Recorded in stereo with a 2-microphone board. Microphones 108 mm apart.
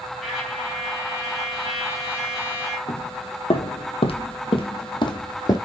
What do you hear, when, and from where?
0.2 s a trumpet: 5° right (ahead or behind), 3 m
2.9 s footsteps: 60° left (ahead or behind), 2 m; by 5.6 s 35° left (ahead or behind), 2.0 m